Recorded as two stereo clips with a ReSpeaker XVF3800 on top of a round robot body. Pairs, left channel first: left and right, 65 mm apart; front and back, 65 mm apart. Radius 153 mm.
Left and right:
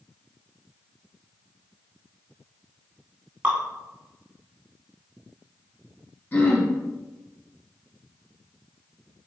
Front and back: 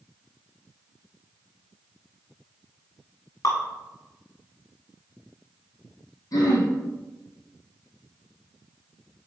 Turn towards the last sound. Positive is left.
turn(degrees=30)